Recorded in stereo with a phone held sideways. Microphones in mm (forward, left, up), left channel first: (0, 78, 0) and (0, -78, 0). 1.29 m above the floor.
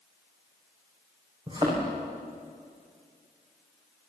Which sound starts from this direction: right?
A thud, at 1.5 s.